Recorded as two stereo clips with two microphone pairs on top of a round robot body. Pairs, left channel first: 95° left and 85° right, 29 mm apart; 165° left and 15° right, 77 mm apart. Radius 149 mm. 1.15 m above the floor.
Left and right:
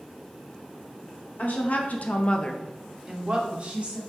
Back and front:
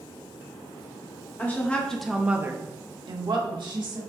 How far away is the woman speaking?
About 1.1 m.